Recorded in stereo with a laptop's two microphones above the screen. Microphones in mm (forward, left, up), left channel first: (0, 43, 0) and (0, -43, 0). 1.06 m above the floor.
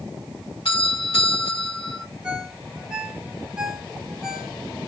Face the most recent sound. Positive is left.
turn(degrees=-10)  # may be behind; listen again after turning